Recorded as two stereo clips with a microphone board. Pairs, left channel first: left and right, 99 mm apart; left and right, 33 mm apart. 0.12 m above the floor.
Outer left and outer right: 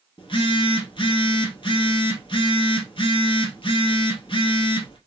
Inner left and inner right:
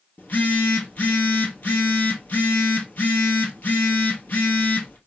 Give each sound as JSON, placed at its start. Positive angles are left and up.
{"t": 0.2, "sound": "a phone buzzing", "side_deg": 60, "distance_m": 1.5}